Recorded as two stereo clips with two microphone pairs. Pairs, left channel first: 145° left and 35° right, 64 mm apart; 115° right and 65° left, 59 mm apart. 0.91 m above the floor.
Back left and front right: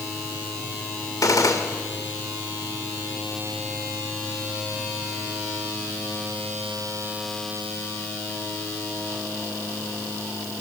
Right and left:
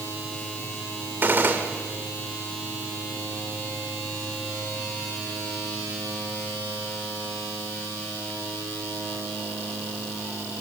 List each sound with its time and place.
1.2 s a gunshot: 120° left, 2 m